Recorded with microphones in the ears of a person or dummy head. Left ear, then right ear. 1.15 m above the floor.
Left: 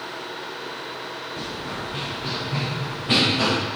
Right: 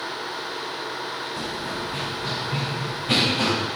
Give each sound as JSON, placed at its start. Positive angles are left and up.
{"t": 1.4, "sound": "running footsteps", "side_deg": -35, "distance_m": 3.0}